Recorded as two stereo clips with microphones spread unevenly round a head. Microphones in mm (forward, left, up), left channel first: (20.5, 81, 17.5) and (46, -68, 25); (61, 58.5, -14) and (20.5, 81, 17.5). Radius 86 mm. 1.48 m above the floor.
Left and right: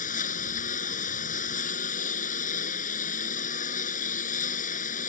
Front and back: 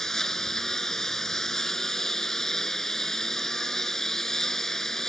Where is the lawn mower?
65° left.